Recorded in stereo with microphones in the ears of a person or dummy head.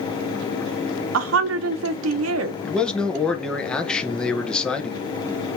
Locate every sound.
1.1 s a woman speaking: 70° right (ahead or behind), 0.6 m
2.6 s a man speaking: 5° left (ahead or behind), 0.9 m